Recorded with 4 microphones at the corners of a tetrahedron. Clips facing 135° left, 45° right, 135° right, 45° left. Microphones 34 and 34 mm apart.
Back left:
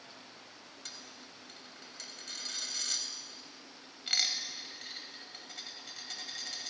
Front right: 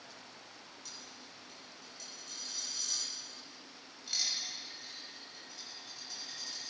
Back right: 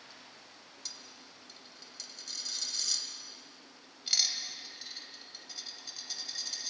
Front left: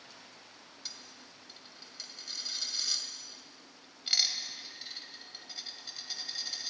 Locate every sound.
0.8 s a dropped coin: 120° left, 2.5 m